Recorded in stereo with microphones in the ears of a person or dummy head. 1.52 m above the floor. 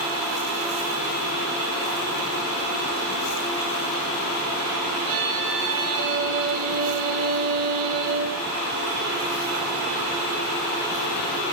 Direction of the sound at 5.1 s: 75° right (ahead or behind).